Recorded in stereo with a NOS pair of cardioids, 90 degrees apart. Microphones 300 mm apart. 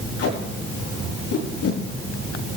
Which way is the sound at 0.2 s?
60° left.